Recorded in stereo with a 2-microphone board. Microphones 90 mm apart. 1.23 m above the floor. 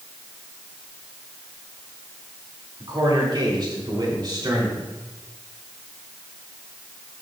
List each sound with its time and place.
2.8 s a man speaking: 60° right (ahead or behind), 3 m; by 4.8 s 50° right (ahead or behind), 4 m